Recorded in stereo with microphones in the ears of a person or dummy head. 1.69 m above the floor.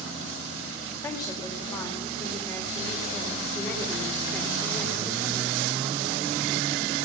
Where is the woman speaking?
20° left (ahead or behind), 6.5 m; by 5.6 s centre (ahead or behind), 4.5 m.